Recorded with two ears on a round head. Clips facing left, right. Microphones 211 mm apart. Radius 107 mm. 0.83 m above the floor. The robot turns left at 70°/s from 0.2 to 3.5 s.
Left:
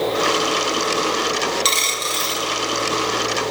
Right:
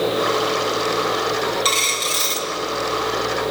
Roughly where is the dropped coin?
Ahead left.